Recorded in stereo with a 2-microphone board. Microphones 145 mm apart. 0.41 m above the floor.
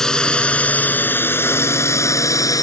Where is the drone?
5° left (ahead or behind); by 2.6 s 25° left (ahead or behind).